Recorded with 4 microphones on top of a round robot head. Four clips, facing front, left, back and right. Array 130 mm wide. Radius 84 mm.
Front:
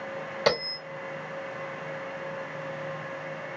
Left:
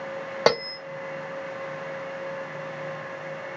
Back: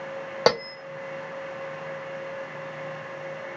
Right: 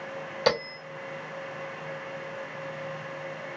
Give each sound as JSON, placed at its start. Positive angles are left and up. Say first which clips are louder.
{"t": 0.5, "sound": "a bell", "louder": "left 4 dB, back 4 dB", "azimuth_deg": 130, "distance_m": 0.5}